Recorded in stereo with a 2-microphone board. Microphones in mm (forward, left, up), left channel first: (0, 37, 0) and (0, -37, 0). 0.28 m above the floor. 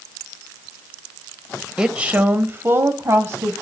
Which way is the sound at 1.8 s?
10° right (ahead or behind).